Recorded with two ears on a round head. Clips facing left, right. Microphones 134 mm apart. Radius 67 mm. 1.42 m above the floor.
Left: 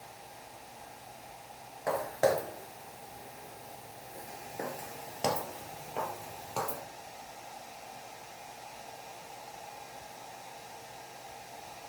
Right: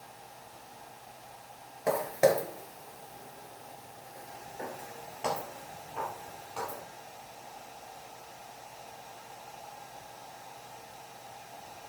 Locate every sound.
1.9 s footsteps: 25° right (ahead or behind), 1.5 m; by 6.8 s 55° left (ahead or behind), 3 m